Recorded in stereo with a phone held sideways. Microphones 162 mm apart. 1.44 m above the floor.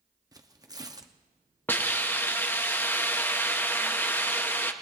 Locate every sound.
0.3 s tearing paper: 25° right (ahead or behind), 0.8 m
1.7 s a hiss: 10° left (ahead or behind), 0.8 m